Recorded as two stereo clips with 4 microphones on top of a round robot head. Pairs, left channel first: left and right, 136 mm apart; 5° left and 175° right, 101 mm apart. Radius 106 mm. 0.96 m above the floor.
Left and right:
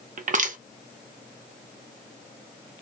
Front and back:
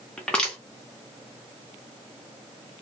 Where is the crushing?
80° right, 0.8 m.